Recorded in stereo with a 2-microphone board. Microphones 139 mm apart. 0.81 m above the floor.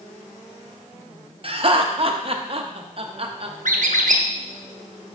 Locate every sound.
1.4 s laughter: 45° right (ahead or behind), 0.7 m
3.6 s a squeak: 70° right (ahead or behind), 0.6 m